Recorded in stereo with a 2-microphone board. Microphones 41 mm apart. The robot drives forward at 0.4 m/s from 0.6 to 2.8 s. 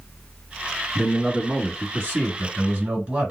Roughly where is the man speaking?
Right.